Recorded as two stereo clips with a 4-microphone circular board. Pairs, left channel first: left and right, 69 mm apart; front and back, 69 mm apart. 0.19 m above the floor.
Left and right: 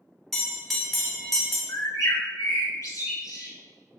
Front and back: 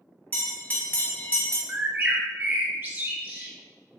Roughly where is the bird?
Behind left.